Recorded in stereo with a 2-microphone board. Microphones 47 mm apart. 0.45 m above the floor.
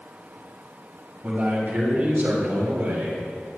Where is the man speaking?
35° right (ahead or behind), 3 m; by 3.2 s 70° right (ahead or behind), 3.5 m.